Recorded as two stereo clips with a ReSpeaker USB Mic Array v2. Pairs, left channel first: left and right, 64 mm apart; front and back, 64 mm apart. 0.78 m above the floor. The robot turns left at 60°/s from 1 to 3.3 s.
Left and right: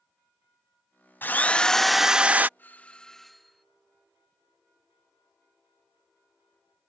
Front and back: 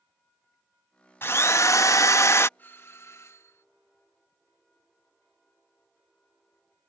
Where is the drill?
45° left; by 2.5 s 35° right.